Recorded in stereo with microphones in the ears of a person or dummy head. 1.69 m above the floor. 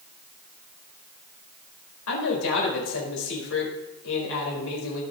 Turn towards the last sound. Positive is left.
turn(degrees=85)